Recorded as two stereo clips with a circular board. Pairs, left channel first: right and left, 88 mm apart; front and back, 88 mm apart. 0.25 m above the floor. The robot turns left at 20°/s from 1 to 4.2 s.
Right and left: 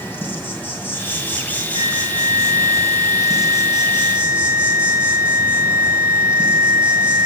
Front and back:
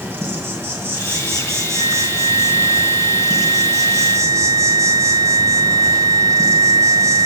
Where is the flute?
105° right, 3 m; by 7.3 s 150° right, 3 m.